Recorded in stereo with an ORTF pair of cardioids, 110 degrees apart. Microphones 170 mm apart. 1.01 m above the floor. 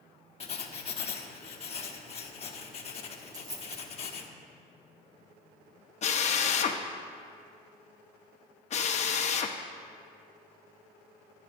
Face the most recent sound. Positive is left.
turn(degrees=40)